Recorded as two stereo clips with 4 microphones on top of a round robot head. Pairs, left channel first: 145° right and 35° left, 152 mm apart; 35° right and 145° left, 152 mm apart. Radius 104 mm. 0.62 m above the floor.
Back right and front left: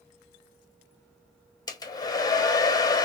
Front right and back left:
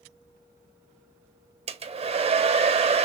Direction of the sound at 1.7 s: 160° left.